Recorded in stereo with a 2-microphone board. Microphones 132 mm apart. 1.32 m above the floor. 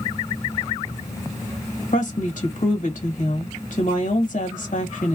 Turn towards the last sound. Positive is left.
turn(degrees=80)